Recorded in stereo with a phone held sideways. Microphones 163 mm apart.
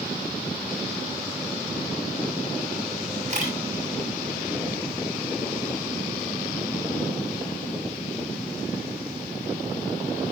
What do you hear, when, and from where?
3.3 s a camera shutter: 50° right (ahead or behind), 6.5 m